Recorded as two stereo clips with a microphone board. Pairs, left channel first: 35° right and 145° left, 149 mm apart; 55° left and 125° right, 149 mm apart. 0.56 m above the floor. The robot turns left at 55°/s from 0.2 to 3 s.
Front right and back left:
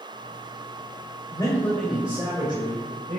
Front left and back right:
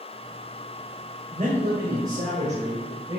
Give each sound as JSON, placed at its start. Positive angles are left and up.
{"t": 1.3, "sound": "a man speaking", "azimuth_deg": -90, "distance_m": 2.0}